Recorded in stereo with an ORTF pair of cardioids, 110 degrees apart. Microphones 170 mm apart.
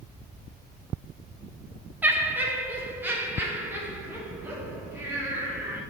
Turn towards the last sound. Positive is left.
turn(degrees=-15)